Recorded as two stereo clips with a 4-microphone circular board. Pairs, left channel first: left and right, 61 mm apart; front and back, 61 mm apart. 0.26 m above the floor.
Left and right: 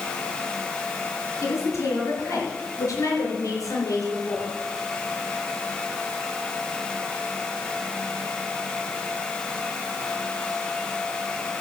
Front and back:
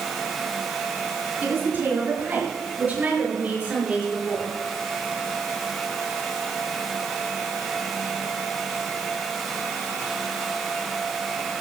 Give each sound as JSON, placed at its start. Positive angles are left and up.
{"t": 1.4, "sound": "a woman speaking", "azimuth_deg": 125, "distance_m": 5.0}